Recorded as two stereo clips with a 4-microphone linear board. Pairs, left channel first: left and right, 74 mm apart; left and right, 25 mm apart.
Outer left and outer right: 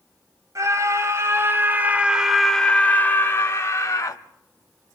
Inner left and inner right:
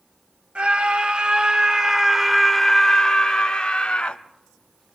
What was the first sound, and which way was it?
A scream, 50° right (ahead or behind).